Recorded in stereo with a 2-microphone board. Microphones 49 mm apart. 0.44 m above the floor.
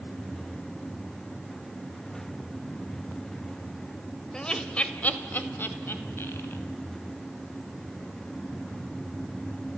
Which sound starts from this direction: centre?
Laughter, at 4.3 s.